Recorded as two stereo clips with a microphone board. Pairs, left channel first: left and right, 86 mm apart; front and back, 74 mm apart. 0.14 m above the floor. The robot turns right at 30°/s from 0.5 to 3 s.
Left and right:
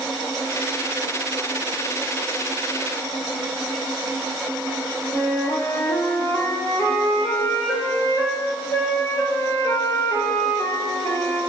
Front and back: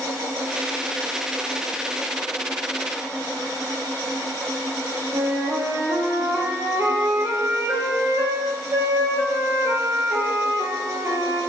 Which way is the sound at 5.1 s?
140° left.